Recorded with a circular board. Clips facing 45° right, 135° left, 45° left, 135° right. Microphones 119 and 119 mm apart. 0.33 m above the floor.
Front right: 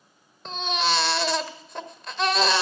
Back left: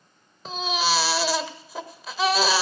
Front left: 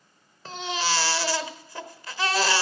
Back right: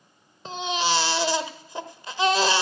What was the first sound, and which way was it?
A baby crying, 145° right.